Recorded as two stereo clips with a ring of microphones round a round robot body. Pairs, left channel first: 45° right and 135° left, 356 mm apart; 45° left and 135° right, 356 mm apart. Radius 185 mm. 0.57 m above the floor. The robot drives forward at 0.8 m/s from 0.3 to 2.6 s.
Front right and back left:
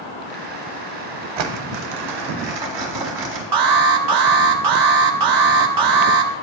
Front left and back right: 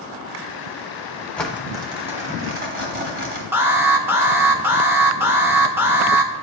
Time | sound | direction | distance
1.4 | crumpling | 130° left | 0.9 m
3.5 | an alarm | 140° left | 0.9 m